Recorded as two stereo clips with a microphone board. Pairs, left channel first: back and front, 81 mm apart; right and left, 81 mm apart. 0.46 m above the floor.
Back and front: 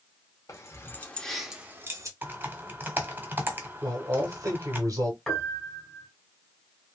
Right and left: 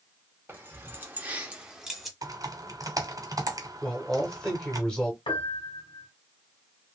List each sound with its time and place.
0.5 s keys jangling: 150° left, 1.0 m; by 2.1 s 5° left, 0.9 m
2.2 s typing on a keyboard: 60° left, 0.9 m
3.8 s a man speaking: 10° right, 1.3 m
5.3 s a piano: 95° right, 1.1 m